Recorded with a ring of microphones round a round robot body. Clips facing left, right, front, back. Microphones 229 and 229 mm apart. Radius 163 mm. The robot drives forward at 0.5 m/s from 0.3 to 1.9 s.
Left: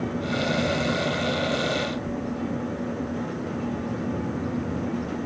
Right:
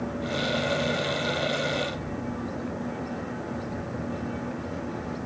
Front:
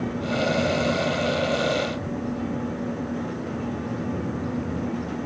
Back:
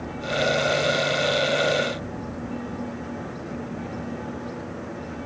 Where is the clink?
No clink in this recording.